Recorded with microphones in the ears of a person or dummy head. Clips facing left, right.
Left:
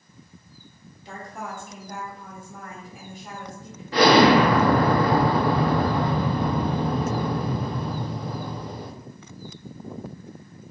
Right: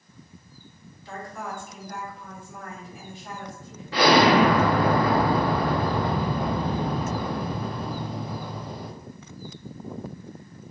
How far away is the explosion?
About 0.7 m.